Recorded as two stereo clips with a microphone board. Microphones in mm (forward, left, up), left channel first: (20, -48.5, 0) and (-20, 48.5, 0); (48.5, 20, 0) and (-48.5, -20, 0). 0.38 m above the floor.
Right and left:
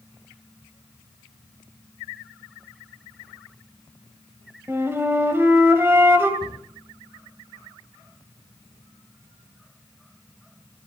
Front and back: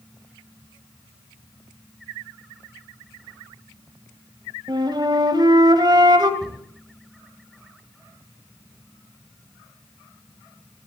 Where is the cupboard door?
155° left, 8 m.